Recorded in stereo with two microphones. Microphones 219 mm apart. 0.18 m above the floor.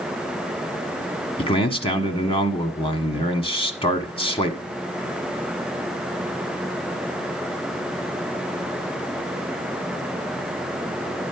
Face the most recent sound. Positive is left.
turn(degrees=25)  # may be behind; listen again after turning